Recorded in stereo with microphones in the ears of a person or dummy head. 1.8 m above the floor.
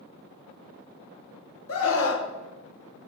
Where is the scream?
80° left, 2.5 m.